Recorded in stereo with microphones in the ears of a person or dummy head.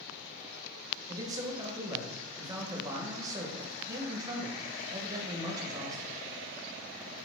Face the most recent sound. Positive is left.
turn(degrees=-25)  # may be behind; listen again after turning